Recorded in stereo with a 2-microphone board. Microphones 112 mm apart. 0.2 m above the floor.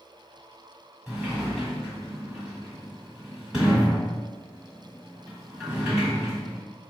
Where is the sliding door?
5° right (ahead or behind), 1.4 m.